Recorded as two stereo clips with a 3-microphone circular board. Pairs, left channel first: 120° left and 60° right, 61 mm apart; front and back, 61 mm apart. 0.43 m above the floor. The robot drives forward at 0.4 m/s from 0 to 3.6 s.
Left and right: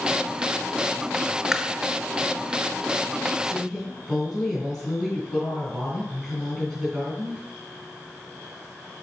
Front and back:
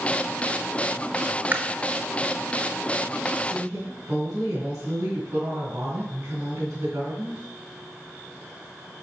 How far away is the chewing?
About 0.5 m.